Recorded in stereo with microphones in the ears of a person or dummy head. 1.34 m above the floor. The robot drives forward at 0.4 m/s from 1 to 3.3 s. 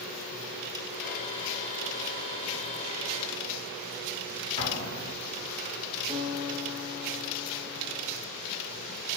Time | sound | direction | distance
4.6 | an explosion | 25° left (ahead or behind) | 0.8 m
6.1 | a guitar | 15° left (ahead or behind) | 1.1 m